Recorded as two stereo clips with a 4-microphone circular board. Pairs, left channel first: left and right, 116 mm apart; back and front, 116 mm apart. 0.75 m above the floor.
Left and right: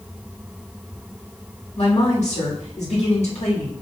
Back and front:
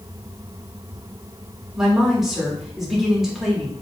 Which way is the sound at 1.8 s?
85° left.